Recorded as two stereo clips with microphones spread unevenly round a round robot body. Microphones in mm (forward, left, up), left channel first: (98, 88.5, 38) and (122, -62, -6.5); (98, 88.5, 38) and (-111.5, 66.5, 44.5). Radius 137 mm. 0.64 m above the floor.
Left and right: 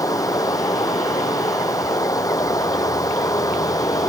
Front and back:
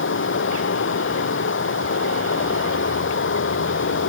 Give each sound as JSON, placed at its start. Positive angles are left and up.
{"t": 0.0, "sound": "running water", "azimuth_deg": 30}